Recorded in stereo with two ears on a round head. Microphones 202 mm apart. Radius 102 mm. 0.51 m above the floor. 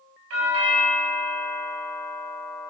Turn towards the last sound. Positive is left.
turn(degrees=-65)  # may be behind; listen again after turning